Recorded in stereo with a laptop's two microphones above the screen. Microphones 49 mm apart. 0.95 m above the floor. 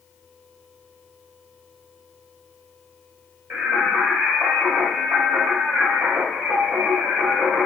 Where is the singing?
55° right (ahead or behind), 1.2 m.